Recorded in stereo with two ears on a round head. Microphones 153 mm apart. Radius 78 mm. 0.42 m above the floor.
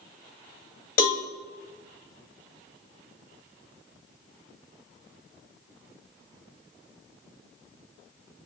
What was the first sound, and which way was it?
A cowbell, 50° left (ahead or behind).